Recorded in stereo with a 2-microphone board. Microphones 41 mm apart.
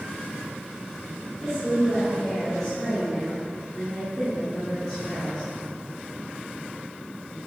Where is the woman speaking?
10° left (ahead or behind), 3 m; by 5.4 s centre (ahead or behind), 9.5 m.